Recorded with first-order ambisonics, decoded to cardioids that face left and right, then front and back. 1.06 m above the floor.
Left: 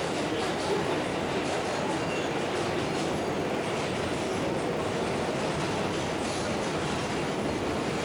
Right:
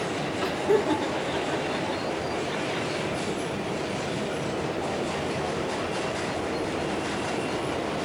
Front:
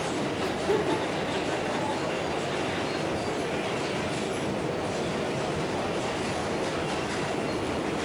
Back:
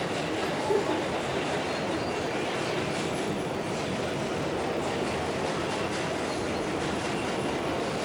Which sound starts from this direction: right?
Laughter, at 0.4 s.